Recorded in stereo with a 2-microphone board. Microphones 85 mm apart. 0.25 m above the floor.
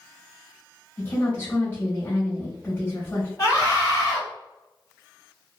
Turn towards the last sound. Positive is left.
turn(degrees=40)  # may be behind; listen again after turning